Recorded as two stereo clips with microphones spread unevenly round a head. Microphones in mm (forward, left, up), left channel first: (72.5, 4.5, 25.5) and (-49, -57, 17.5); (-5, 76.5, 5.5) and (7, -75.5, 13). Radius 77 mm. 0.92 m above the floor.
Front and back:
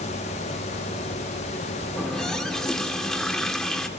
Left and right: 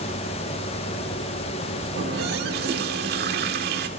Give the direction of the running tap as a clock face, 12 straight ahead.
2 o'clock.